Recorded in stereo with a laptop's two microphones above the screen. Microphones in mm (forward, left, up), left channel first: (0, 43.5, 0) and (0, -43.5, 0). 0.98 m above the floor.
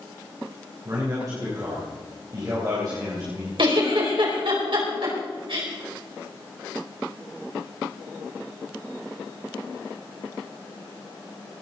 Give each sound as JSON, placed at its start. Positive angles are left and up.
{"t": 0.8, "sound": "a man speaking", "side_deg": -45, "distance_m": 4.0}
{"t": 3.6, "sound": "a giggle", "side_deg": -70, "distance_m": 4.5}